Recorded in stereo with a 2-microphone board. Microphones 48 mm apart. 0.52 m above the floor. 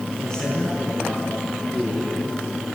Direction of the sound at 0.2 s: 15° left (ahead or behind).